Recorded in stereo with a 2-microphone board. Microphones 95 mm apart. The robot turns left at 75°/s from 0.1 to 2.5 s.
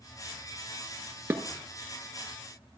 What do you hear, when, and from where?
1.3 s dishes clattering: 25° right (ahead or behind), 1.1 m; by 1.4 s 30° right (ahead or behind), 1.1 m